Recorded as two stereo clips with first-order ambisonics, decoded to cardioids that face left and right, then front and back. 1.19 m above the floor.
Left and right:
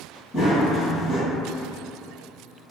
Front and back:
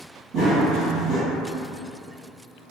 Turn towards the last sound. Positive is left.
turn(degrees=150)